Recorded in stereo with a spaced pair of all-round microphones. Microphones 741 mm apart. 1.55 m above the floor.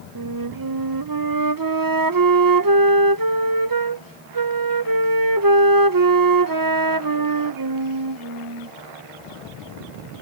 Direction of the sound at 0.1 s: 30° right (ahead or behind).